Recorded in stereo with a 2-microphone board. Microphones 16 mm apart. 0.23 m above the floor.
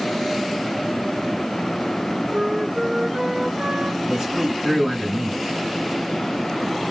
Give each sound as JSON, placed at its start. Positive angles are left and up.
{"t": 2.3, "sound": "a flute", "side_deg": -65, "distance_m": 0.9}
{"t": 4.1, "sound": "a man speaking", "side_deg": -30, "distance_m": 2.5}